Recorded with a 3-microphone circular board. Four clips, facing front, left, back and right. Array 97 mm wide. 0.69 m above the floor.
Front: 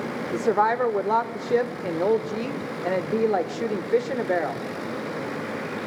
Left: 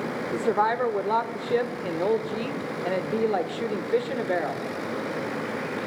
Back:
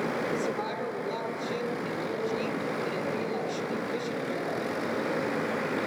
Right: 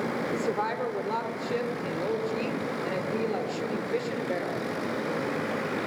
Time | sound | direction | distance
0.3 | a woman speaking | 25° left | 2 m